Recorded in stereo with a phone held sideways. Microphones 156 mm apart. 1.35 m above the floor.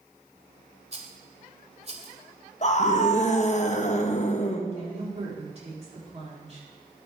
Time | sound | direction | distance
0.9 | a rattle | 45° right (ahead or behind) | 1.5 m
2.6 | a scream | 50° left (ahead or behind) | 1.2 m
4.7 | a woman speaking | 40° right (ahead or behind) | 3 m